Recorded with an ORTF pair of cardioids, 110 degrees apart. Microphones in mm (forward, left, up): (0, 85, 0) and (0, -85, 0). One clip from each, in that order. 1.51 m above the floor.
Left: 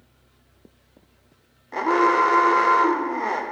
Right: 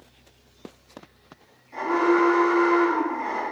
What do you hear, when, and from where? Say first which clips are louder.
1.7 s an alarm: left 3 dB; 65° left, 0.6 m